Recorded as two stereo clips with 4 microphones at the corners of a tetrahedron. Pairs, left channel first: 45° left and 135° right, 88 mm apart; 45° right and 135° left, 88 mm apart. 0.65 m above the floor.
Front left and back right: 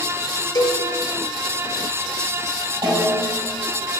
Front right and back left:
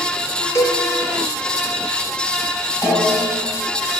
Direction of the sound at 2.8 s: 115° right.